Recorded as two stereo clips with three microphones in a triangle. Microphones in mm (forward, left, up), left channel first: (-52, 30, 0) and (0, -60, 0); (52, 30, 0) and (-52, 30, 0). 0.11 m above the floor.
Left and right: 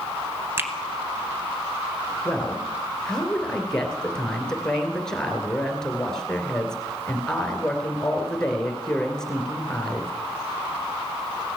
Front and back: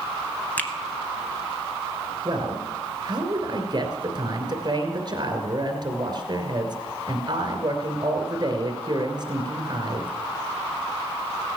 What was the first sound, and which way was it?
A finger snap, 50° right.